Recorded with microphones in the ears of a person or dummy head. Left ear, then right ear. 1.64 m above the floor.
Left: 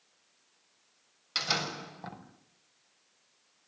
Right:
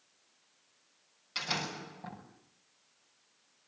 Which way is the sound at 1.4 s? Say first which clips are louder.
Left 4 dB; 30° left (ahead or behind).